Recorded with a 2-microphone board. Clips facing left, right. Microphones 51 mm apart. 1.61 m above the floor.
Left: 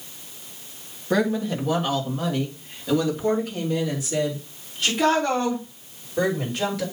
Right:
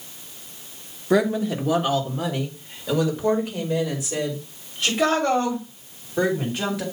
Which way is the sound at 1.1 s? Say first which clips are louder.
Right 2 dB; 5° right (ahead or behind).